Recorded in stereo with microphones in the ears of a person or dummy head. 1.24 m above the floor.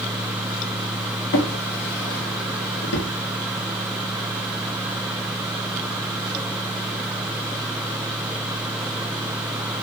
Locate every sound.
1.3 s a drawer: 60° left (ahead or behind), 0.9 m